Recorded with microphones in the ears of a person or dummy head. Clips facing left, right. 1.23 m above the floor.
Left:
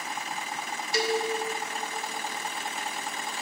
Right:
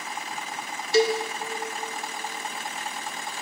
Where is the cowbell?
25° right (ahead or behind), 0.6 m.